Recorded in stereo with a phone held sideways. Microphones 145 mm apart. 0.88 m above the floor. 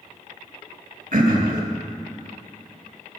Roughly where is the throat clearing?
Right.